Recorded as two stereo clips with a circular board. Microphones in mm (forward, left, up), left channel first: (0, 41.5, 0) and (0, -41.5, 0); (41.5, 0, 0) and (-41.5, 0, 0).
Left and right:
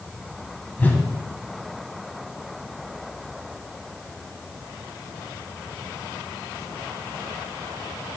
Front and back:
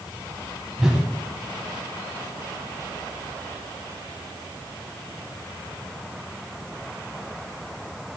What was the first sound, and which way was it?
A whoosh, 110° left.